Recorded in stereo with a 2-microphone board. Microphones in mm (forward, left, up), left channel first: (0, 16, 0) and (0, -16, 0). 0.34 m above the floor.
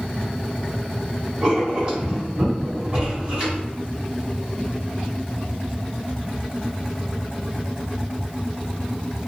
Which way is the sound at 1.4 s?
30° right (ahead or behind).